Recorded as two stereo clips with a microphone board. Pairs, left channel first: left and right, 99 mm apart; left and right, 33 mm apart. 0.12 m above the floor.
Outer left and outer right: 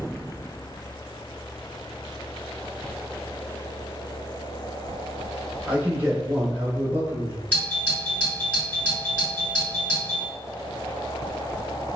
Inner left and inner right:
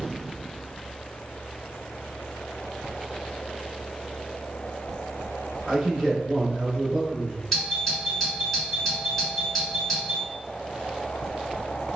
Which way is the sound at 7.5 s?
10° left (ahead or behind).